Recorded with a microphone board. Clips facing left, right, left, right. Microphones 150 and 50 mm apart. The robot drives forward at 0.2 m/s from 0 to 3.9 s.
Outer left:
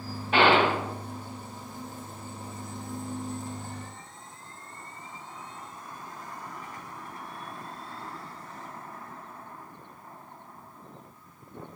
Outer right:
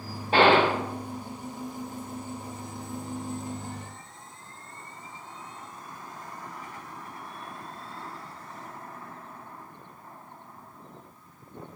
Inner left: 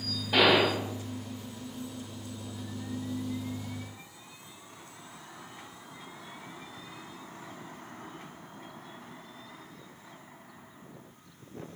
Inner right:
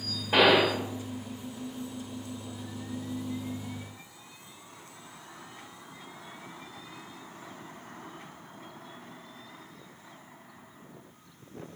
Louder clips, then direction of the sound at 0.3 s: Outer right 2 dB, inner right 2 dB; 40° right (ahead or behind).